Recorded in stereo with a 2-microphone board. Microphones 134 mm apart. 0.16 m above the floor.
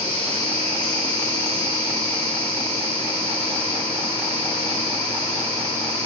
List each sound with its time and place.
0.0 s an insect: 50° right (ahead or behind), 1.9 m